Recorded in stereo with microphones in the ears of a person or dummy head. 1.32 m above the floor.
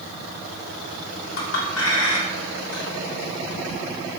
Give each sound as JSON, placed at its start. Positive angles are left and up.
{"t": 1.4, "sound": "a clink", "side_deg": 85, "distance_m": 3.0}